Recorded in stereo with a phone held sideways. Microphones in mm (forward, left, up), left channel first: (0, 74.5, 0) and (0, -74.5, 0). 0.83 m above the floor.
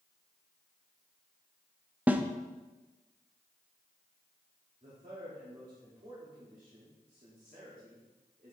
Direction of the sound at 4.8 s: 65° right (ahead or behind).